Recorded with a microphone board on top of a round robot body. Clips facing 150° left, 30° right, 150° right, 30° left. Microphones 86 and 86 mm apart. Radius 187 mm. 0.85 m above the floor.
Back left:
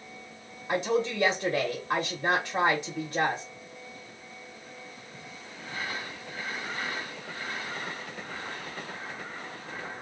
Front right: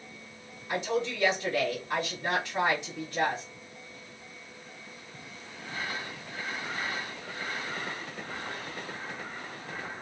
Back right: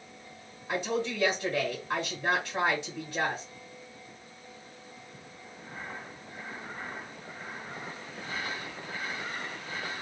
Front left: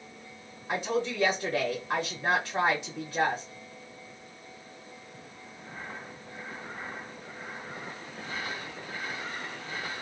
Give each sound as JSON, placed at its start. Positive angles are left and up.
{"t": 0.7, "sound": "a woman speaking", "azimuth_deg": 105, "distance_m": 0.9}